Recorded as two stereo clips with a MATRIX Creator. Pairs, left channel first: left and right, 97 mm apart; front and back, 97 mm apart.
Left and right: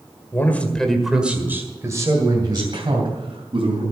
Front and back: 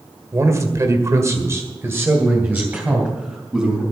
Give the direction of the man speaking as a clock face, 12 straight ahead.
7 o'clock.